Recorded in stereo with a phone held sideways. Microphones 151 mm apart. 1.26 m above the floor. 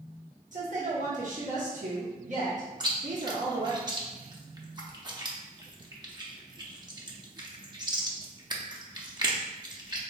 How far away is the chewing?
About 0.6 m.